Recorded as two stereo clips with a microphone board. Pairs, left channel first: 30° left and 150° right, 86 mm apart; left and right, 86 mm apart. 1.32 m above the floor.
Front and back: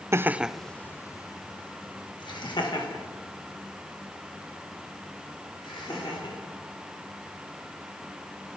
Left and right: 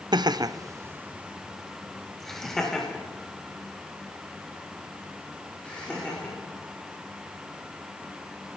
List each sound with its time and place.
0.1 s laughter: 100° right, 0.6 m; by 6.3 s 15° left, 4.5 m